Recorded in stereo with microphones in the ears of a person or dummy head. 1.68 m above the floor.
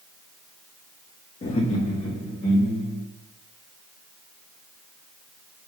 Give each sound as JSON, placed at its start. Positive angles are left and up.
{"t": 1.4, "sound": "laughter", "side_deg": 40, "distance_m": 0.5}